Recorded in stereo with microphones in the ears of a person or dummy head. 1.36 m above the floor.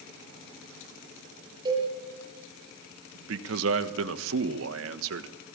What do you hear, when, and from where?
1.6 s a cowbell: 25° right (ahead or behind), 9 m
3.1 s a man speaking: 75° right (ahead or behind), 1.3 m